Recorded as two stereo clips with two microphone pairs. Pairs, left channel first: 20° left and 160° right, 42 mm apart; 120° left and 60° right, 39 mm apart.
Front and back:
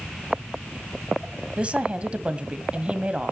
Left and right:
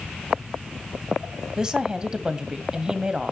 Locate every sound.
1.6 s a woman speaking: 120° right, 1.4 m